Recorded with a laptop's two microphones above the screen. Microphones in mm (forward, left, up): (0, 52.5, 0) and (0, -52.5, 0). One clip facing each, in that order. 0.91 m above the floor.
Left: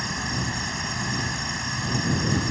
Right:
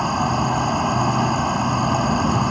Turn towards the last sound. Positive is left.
turn(degrees=-55)  # may be behind; listen again after turning